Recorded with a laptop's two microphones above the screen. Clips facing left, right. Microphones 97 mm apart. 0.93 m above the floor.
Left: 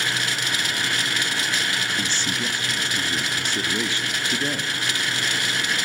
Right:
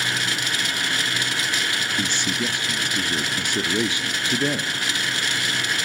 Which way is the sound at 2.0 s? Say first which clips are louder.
Right 2 dB; 15° right (ahead or behind).